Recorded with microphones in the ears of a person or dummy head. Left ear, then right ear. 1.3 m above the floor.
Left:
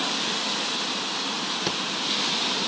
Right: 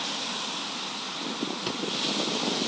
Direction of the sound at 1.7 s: 10° left (ahead or behind).